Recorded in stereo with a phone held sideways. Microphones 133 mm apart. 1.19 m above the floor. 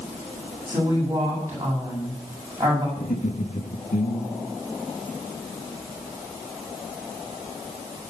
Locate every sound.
0.7 s a woman speaking: 20° right (ahead or behind), 8 m
3.0 s laughter: 70° left (ahead or behind), 2.0 m